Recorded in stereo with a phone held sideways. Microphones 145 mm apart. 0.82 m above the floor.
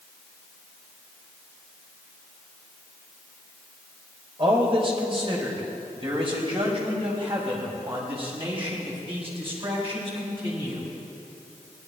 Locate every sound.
4.4 s a man speaking: 40° right (ahead or behind), 4.5 m